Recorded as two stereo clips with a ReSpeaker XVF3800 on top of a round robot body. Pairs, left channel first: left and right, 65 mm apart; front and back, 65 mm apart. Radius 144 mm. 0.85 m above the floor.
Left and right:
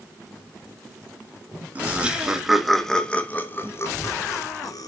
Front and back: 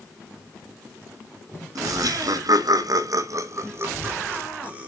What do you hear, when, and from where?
1.8 s laughter: 160° right, 1.9 m; by 4.9 s 110° left, 2 m